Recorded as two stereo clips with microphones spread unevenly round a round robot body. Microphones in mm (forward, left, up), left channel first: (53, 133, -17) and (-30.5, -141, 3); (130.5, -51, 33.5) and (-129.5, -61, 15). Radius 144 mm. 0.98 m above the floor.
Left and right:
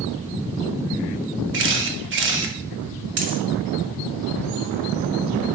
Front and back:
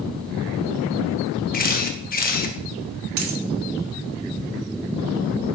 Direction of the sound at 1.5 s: 55° right.